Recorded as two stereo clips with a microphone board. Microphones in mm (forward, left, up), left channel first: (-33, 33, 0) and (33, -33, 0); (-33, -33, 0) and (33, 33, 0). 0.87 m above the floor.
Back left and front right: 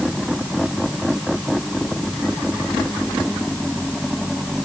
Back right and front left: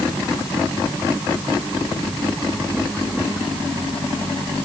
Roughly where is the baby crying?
I don't hear a baby crying.